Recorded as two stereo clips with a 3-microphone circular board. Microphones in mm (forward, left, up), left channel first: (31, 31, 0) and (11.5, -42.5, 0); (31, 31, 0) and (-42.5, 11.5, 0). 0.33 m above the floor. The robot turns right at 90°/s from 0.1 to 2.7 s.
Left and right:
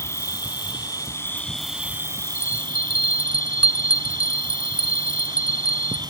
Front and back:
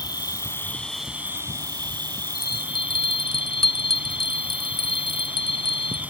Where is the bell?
95° right; by 6.0 s 60° right.